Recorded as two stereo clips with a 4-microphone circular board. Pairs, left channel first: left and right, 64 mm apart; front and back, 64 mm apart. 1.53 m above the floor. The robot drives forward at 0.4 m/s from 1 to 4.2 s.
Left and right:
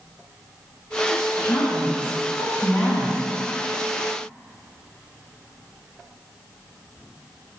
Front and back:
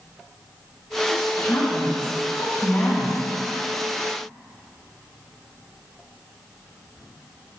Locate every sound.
1.1 s a woman speaking: 40° left, 1.6 m; by 3.2 s 70° left, 1.1 m